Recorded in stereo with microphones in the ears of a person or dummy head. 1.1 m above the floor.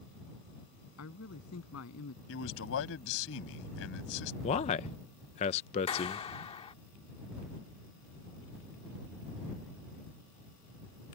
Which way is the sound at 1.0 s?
85° left.